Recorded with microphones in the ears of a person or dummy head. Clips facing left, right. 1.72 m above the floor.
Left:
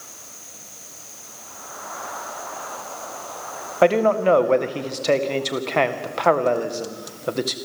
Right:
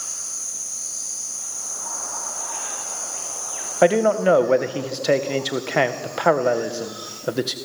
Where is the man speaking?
5° right (ahead or behind), 1.8 m.